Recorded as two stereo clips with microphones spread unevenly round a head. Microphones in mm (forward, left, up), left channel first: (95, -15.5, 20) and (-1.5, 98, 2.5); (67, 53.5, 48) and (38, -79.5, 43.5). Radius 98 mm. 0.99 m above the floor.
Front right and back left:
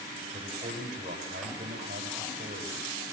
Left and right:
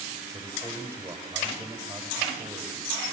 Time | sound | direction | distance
0.3 | a man speaking | straight behind | 5 m